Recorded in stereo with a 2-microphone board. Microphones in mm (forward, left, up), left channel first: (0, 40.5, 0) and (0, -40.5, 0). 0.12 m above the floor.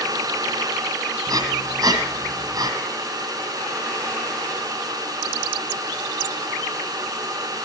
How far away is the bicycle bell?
No bicycle bell in this recording.